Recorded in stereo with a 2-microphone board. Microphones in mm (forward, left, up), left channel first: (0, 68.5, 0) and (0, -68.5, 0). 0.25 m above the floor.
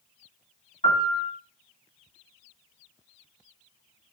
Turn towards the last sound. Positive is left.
turn(degrees=50)  # may be behind; listen again after turning